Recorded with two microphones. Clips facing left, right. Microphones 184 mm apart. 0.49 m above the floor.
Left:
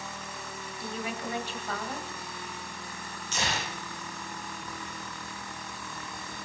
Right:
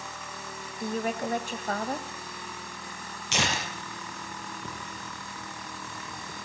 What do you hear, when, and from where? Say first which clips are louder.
0.8 s a woman speaking: right 6 dB; 45° right (ahead or behind), 2.5 m
3.3 s tearing paper: right 3 dB; 75° right (ahead or behind), 6 m